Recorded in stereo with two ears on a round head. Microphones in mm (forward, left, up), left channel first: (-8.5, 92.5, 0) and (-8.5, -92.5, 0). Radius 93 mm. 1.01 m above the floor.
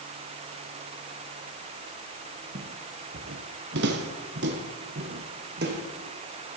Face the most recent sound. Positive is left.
turn(degrees=-50)  # may be behind; listen again after turning